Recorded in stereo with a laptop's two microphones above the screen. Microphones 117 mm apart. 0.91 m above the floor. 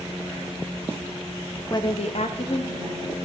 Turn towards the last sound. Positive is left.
turn(degrees=35)  # may be behind; listen again after turning